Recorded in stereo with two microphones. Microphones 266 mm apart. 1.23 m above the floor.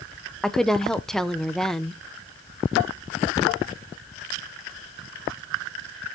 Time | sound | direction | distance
0.4 | a woman speaking | centre (ahead or behind) | 0.7 m